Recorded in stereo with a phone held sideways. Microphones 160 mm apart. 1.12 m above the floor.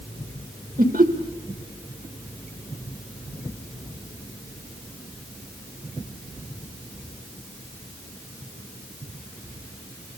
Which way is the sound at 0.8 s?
55° right (ahead or behind).